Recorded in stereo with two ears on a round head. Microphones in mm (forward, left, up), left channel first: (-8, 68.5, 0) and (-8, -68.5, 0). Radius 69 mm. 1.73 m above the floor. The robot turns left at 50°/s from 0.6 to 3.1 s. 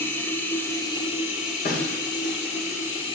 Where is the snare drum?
70° left (ahead or behind), 3 m; by 2.0 s 85° left, 3 m.